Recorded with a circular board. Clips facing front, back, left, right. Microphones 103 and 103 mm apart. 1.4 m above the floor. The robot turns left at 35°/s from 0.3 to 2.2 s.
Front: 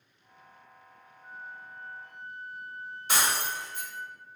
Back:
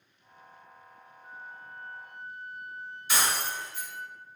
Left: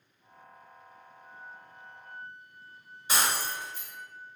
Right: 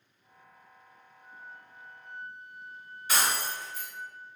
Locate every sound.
1.2 s a flute: 70° left, 1.7 m; by 4.1 s 35° left, 1.7 m
3.1 s breaking glass: 25° left, 2.0 m